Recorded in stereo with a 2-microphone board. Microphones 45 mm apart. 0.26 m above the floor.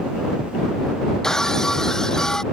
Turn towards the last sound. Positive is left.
turn(degrees=10)  # may be behind; listen again after turning